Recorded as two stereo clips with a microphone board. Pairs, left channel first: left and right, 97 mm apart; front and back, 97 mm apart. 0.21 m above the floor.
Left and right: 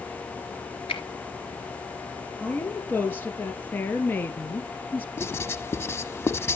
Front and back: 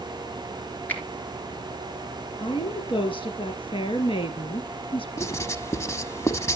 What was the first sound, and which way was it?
A finger snap, 70° left.